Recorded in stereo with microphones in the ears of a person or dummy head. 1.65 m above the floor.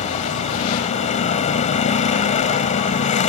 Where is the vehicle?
35° left (ahead or behind).